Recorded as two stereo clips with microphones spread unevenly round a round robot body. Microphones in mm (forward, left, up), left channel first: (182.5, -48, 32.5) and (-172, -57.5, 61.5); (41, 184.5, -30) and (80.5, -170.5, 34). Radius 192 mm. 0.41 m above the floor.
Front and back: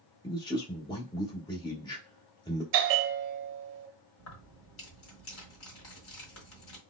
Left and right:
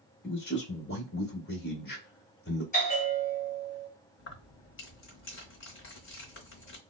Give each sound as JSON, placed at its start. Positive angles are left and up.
{"t": 0.2, "sound": "a man speaking", "azimuth_deg": 70, "distance_m": 1.1}
{"t": 2.7, "sound": "a bell", "azimuth_deg": 165, "distance_m": 0.6}
{"t": 4.2, "sound": "keys jangling", "azimuth_deg": 45, "distance_m": 1.1}